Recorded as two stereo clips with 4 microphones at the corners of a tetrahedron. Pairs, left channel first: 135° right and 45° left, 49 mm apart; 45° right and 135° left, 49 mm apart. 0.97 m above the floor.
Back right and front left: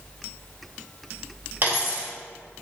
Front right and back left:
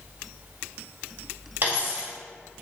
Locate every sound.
1.6 s a dropped coin: 85° left, 2.0 m